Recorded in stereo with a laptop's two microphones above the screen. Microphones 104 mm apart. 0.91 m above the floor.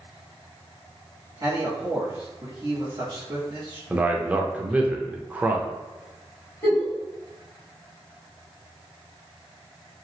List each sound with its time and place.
1.4 s a man speaking: 40° right (ahead or behind), 1.3 m
3.9 s a man speaking: 15° right (ahead or behind), 0.5 m
6.6 s a giggle: 25° left (ahead or behind), 1.5 m